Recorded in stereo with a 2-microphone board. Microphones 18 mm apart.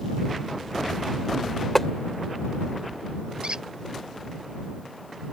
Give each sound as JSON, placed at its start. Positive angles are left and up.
{"t": 1.8, "sound": "tapping", "side_deg": 15}
{"t": 3.4, "sound": "a squeak", "side_deg": -60}